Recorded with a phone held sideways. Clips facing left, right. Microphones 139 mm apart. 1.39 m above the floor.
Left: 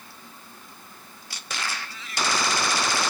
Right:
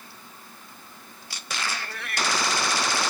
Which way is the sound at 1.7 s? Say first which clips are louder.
Right 2 dB; 60° right (ahead or behind).